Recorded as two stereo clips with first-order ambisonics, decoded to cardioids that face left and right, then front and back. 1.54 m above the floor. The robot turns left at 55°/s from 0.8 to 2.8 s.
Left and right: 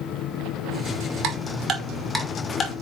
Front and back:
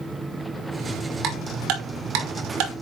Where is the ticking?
130° right, 2.5 m; by 2.7 s 145° left, 2.5 m.